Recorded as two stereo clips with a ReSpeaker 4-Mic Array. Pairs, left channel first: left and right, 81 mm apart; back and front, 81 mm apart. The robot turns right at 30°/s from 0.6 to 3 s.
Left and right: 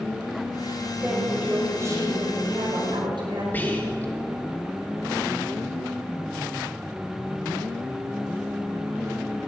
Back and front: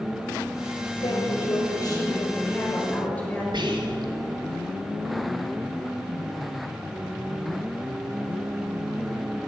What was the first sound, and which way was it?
A woman speaking, 165° right.